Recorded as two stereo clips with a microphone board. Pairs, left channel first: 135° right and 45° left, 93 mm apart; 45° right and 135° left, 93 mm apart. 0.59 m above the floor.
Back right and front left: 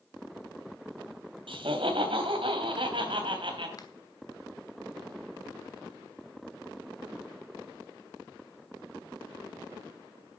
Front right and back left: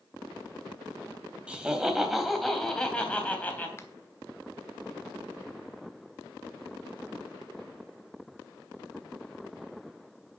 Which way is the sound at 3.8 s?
100° right.